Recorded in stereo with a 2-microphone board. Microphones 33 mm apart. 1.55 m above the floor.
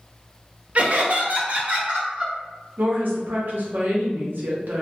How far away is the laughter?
About 0.5 m.